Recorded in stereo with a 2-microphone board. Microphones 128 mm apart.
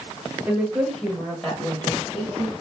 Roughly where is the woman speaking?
Centre.